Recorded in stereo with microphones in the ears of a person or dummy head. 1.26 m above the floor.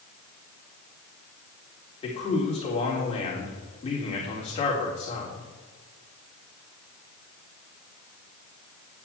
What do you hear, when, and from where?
2.0 s a man speaking: 35° left (ahead or behind), 4 m